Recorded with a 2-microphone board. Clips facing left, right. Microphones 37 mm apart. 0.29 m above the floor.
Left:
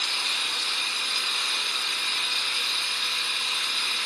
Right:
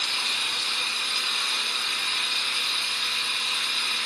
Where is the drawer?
I don't hear a drawer.